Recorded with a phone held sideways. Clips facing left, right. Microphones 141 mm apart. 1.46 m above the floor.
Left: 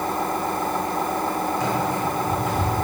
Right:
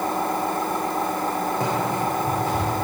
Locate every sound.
1.6 s running footsteps: 55° right (ahead or behind), 5.5 m